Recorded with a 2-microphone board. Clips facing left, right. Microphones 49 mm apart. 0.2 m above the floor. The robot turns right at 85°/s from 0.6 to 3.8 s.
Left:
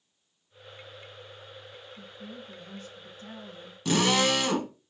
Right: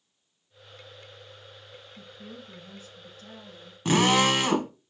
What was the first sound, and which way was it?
A woman speaking, 80° right.